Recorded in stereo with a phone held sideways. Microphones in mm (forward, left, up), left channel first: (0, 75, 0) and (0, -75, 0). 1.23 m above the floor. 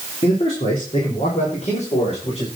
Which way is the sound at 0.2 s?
45° left (ahead or behind).